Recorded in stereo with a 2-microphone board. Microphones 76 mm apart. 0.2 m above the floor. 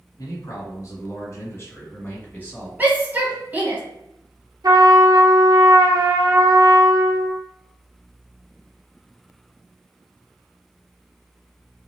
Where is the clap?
No clap in this recording.